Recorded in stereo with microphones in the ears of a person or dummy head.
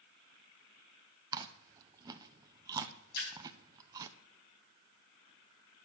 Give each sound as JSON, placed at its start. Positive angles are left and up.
{"t": 1.3, "sound": "chewing", "side_deg": -15, "distance_m": 0.7}
{"t": 3.1, "sound": "a splash", "side_deg": 55, "distance_m": 5.5}